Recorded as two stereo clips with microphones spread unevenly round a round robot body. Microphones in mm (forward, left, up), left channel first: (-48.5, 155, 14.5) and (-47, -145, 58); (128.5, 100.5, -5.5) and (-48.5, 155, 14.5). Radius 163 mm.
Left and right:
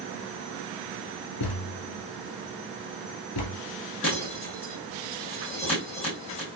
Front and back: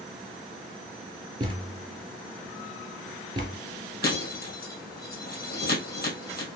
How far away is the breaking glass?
About 2.5 m.